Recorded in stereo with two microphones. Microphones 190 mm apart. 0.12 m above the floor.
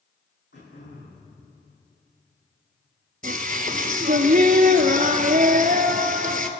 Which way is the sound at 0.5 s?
70° left (ahead or behind).